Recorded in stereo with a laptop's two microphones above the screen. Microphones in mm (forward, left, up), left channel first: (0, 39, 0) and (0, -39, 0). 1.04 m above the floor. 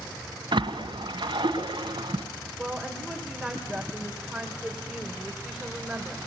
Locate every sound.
0.5 s a splash: 75° right (ahead or behind), 2 m
2.6 s a woman speaking: 5° right (ahead or behind), 5 m